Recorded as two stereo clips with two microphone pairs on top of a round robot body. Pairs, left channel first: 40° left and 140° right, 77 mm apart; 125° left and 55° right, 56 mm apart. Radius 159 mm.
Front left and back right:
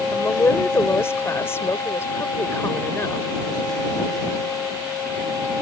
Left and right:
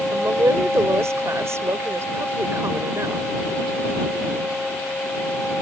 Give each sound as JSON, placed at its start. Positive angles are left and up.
{"t": 0.1, "sound": "a woman speaking", "azimuth_deg": -20}